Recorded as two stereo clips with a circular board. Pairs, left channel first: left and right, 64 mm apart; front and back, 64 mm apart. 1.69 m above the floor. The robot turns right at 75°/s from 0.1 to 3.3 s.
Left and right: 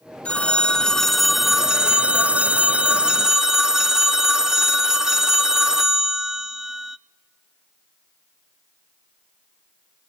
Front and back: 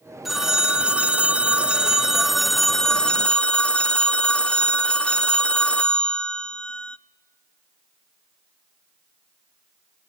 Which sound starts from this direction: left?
A phone ringing, at 0.2 s.